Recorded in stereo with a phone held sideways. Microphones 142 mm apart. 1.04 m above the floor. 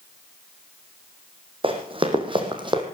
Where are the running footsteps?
40° right (ahead or behind), 2.5 m; by 2.8 s 35° right (ahead or behind), 2 m.